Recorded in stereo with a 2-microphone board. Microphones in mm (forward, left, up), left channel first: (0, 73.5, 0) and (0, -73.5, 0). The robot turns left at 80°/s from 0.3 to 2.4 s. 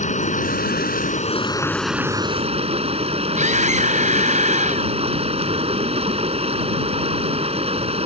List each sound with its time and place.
0.0 s running water: 125° left; by 8.1 s 45° right
3.4 s a scream: 55° right (ahead or behind)